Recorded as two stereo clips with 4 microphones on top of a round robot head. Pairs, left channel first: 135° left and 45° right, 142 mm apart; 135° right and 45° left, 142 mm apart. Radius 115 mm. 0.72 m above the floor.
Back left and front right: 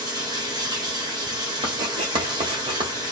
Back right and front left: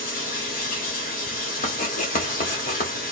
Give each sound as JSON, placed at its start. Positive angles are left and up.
{"t": 0.0, "sound": "running water", "azimuth_deg": -110, "distance_m": 1.1}
{"t": 1.6, "sound": "writing", "azimuth_deg": -105, "distance_m": 1.0}